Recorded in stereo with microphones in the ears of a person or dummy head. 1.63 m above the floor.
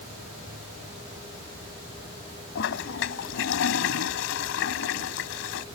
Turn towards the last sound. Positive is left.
turn(degrees=65)  # may be behind; listen again after turning